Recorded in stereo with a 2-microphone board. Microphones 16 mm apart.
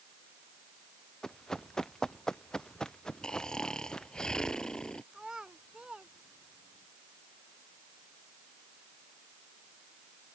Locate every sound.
1.2 s running footsteps: 35° left (ahead or behind); by 4.2 s 50° left (ahead or behind)
3.2 s snoring: 45° left (ahead or behind)
5.1 s a child speaking: 50° right (ahead or behind)